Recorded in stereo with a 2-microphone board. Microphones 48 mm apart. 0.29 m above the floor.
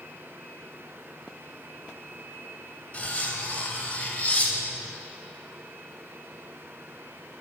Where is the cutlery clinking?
30° left (ahead or behind), 0.6 m.